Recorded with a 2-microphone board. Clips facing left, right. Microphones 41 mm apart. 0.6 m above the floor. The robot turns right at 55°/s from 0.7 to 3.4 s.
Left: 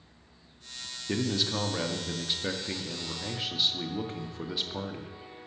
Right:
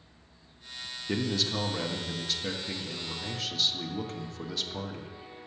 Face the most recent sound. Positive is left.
turn(degrees=20)  # may be behind; listen again after turning